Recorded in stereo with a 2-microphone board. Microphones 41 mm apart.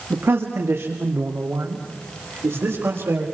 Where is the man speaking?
70° right (ahead or behind), 1.8 m; by 3.2 s 80° right, 4.5 m.